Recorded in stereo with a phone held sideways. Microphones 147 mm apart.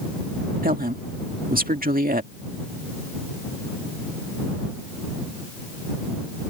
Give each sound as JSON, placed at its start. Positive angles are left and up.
{"t": 0.6, "sound": "a woman speaking", "side_deg": -70}